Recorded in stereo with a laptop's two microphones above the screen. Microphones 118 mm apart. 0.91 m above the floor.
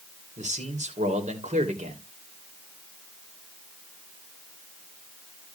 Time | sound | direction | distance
0.4 | a man speaking | 80° right | 3 m